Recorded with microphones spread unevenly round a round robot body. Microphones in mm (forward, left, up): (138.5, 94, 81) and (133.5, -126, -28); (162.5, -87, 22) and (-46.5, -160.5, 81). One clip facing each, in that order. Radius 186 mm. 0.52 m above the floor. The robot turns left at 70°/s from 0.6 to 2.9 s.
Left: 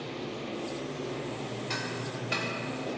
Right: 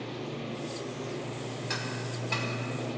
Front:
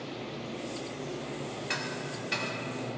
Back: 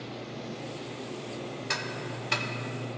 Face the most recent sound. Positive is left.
turn(degrees=150)